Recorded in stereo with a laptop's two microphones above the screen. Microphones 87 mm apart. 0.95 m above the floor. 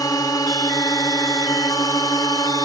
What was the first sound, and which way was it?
A drone, 45° left (ahead or behind).